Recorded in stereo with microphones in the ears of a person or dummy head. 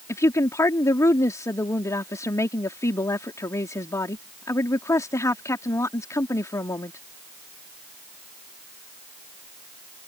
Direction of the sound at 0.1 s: 15° left (ahead or behind).